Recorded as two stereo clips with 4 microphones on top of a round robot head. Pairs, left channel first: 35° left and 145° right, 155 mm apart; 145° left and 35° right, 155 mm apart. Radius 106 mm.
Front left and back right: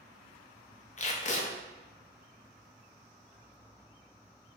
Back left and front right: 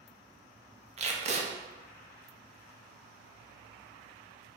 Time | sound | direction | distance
1.0 | tape being pulled | 5° left | 0.7 m